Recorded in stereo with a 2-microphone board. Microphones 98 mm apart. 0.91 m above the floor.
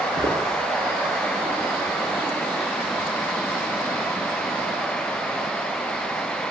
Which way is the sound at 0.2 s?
80° right.